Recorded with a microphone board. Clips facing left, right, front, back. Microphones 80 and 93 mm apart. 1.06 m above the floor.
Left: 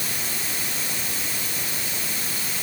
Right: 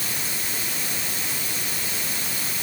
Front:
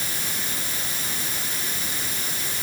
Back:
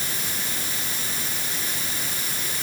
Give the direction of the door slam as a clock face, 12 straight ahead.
I don't hear a door slam.